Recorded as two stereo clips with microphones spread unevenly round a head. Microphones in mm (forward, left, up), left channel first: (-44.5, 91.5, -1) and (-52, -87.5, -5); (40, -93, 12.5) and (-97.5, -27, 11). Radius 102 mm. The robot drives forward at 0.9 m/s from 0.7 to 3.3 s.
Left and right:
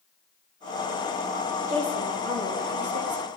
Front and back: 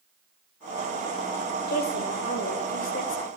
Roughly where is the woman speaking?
Ahead right.